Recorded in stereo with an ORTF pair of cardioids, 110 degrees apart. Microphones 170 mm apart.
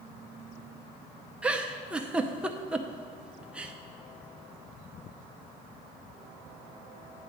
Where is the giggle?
5° right, 0.6 m.